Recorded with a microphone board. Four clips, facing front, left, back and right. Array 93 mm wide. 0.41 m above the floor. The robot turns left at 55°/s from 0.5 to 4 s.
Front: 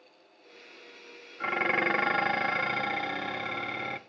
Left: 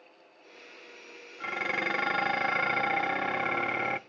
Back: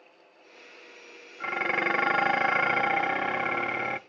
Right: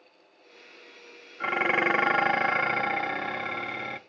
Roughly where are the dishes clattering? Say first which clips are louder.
Right 7 dB, even; right.